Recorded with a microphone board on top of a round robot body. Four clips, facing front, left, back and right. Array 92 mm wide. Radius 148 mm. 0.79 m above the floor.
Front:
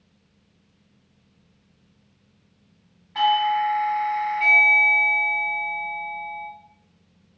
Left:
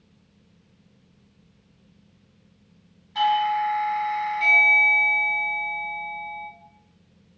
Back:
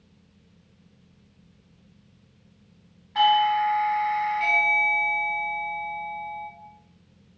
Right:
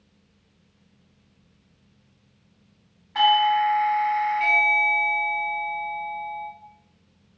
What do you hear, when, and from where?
3.1 s a doorbell: 95° right, 1.5 m